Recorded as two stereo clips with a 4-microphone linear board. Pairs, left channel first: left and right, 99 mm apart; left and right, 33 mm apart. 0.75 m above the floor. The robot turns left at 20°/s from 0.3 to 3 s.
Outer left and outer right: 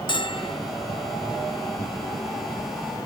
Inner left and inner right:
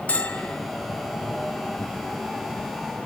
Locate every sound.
0.1 s a bell: 50° left (ahead or behind), 0.8 m; by 0.6 s 55° left (ahead or behind), 0.8 m